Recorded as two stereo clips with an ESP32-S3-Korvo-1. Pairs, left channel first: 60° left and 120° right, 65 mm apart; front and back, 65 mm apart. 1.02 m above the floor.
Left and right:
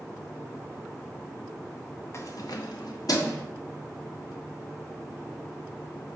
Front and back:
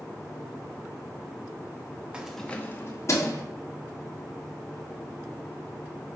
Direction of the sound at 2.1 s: 105° left.